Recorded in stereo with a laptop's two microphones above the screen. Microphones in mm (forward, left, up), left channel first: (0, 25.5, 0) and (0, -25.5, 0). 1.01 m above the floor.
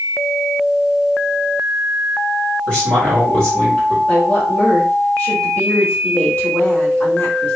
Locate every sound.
2.7 s a man speaking: 15° left (ahead or behind), 2 m
4.1 s a woman speaking: 25° left (ahead or behind), 2 m